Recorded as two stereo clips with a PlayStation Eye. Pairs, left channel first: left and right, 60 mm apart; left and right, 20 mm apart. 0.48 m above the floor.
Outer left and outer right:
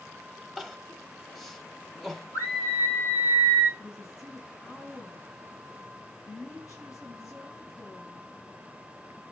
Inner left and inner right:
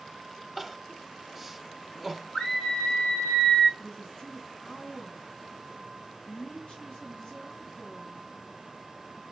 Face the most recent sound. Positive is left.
turn(degrees=60)  # may be behind; listen again after turning